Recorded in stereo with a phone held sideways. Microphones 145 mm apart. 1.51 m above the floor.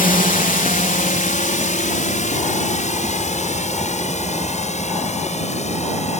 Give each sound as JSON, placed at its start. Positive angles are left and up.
{"t": 0.0, "sound": "a drone", "side_deg": 70}